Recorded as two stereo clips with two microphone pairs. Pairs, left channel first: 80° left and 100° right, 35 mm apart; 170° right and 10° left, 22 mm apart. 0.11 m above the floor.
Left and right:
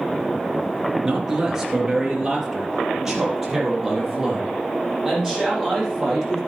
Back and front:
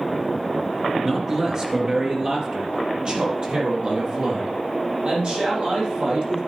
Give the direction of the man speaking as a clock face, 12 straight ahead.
1 o'clock.